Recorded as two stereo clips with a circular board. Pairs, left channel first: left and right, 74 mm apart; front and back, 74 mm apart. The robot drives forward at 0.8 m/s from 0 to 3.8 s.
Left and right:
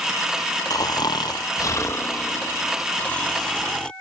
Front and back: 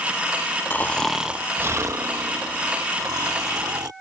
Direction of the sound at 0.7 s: 60° left.